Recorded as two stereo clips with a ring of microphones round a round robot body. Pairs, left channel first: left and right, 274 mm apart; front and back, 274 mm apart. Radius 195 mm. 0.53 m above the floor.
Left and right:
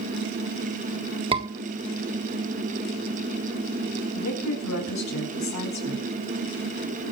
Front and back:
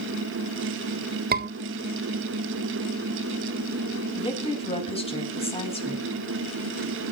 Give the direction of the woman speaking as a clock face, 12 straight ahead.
10 o'clock.